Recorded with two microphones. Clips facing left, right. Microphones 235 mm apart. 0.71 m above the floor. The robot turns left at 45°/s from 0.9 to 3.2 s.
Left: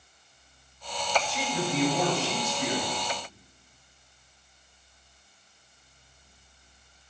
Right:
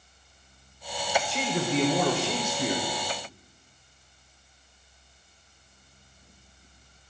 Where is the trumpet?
No trumpet in this recording.